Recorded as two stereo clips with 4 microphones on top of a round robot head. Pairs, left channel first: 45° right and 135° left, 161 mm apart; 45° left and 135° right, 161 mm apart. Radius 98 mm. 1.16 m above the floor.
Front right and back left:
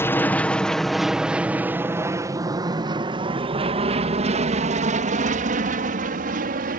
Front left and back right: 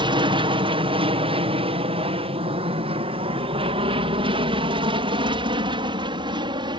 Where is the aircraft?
110° right; by 6.8 s 165° left.